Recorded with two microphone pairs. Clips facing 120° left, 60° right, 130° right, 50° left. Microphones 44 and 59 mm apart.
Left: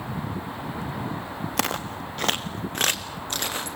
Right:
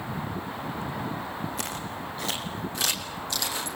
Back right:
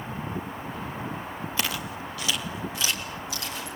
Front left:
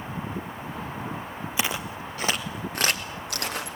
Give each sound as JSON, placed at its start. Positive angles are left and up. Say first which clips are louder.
{"t": 1.6, "sound": "footsteps", "louder": "left 6 dB, front left 3 dB", "azimuth_deg": 125, "distance_m": 1.2}